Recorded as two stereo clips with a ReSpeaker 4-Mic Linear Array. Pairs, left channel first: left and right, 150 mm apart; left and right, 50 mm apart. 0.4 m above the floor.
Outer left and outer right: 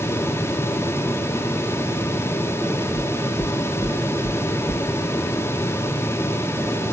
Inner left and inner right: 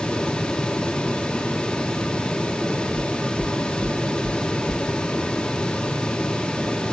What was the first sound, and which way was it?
Knocking, 5° left (ahead or behind).